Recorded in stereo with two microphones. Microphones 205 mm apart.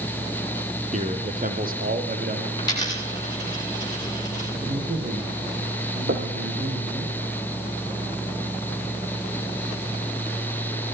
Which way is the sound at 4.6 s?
50° right (ahead or behind).